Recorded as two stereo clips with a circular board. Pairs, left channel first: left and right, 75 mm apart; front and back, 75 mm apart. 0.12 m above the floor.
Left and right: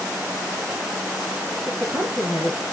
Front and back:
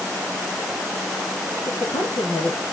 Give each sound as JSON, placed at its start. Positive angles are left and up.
{"t": 1.7, "sound": "a man speaking", "azimuth_deg": -15, "distance_m": 6.5}